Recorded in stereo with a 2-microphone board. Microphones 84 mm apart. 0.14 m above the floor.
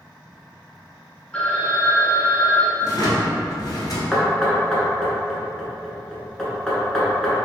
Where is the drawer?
50° left (ahead or behind), 1.0 m.